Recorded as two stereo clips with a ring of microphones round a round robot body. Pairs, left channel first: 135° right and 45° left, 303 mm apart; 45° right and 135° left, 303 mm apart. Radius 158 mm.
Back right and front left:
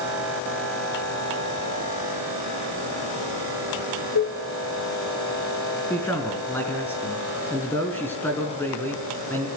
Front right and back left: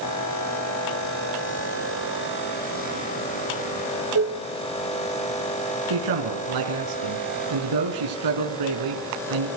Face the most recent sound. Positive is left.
turn(degrees=140)